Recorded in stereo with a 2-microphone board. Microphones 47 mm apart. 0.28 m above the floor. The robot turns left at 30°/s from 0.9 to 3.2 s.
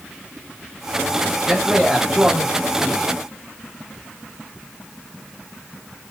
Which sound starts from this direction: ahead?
A man speaking, at 1.5 s.